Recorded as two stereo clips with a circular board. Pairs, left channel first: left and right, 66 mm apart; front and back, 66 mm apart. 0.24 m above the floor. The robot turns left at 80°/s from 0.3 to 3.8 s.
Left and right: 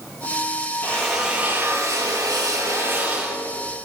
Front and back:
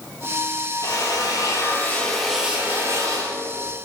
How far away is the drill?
About 7.5 m.